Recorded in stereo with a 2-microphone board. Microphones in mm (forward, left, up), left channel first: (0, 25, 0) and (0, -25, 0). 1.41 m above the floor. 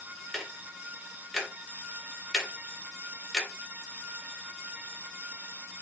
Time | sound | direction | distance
0.3 | ticking | centre (ahead or behind) | 0.9 m